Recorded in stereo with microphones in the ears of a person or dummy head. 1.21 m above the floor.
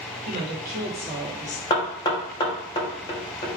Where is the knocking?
20° left (ahead or behind), 0.6 m.